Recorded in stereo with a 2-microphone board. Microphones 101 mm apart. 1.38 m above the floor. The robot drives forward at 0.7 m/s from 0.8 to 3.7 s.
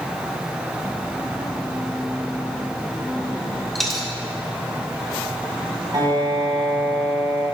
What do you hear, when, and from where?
3.8 s a dropped coin: centre (ahead or behind), 1.0 m
5.9 s a piano: 40° right (ahead or behind), 1.6 m